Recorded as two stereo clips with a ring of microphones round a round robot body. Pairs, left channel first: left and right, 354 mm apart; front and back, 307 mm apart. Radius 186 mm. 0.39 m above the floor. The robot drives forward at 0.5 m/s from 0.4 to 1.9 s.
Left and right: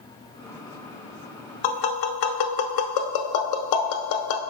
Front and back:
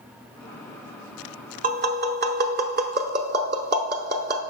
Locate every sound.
1.6 s tapping: 115° left, 0.8 m; by 4.4 s 120° left, 0.9 m